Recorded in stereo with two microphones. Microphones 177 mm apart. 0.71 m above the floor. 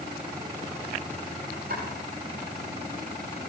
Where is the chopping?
70° right (ahead or behind), 9.5 m.